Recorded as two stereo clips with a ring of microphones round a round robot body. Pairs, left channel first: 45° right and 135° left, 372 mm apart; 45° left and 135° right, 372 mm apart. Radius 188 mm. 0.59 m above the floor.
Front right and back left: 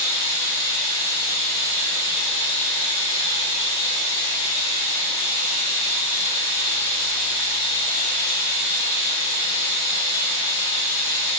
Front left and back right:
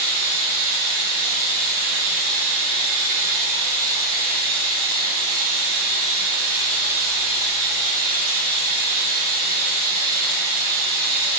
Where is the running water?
105° right, 5 m.